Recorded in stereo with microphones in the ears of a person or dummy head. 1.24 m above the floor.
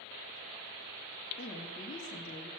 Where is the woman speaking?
35° left (ahead or behind), 3 m.